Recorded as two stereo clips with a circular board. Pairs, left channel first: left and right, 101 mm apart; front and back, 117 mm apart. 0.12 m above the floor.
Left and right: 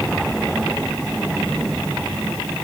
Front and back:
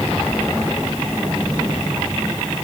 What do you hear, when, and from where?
Only background noise.